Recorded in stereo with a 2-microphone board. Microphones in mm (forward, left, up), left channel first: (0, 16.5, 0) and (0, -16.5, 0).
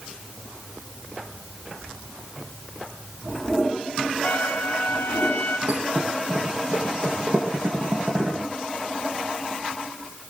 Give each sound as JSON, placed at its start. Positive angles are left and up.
{"t": 4.2, "sound": "a trumpet", "side_deg": 80, "distance_m": 3.0}
{"t": 5.7, "sound": "a thud", "side_deg": -60, "distance_m": 9.5}